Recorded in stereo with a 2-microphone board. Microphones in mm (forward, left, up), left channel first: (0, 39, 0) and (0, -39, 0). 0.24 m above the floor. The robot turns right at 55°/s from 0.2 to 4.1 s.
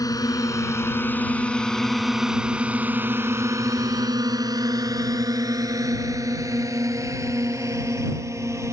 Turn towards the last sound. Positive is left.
turn(degrees=-40)  # may be behind; listen again after turning